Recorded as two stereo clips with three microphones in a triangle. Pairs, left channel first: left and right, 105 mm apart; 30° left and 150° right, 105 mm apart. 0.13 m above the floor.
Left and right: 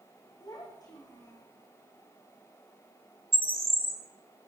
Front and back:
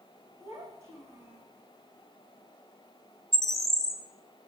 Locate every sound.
0.4 s a child speaking: 145° left, 6 m
3.3 s a bird: 60° right, 2.5 m